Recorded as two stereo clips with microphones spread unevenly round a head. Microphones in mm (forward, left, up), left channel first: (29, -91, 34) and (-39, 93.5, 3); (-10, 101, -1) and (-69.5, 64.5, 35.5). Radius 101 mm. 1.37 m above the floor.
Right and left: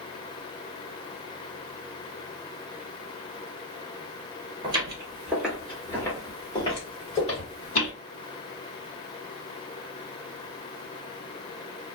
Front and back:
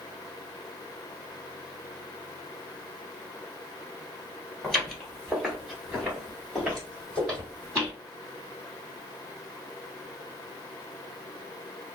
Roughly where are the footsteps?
Behind.